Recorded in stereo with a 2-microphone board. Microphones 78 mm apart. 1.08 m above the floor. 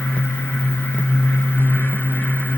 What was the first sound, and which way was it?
Only background noise.